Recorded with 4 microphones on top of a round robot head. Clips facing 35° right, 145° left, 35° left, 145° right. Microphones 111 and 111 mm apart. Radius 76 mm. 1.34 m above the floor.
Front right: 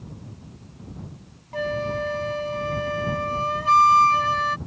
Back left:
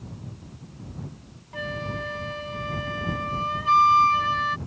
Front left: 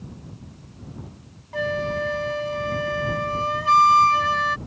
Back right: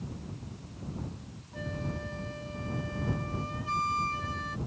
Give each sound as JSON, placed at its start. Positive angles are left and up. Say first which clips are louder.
{"t": 1.5, "sound": "a flute", "louder": "front right 7 dB, front left 13 dB", "azimuth_deg": 15}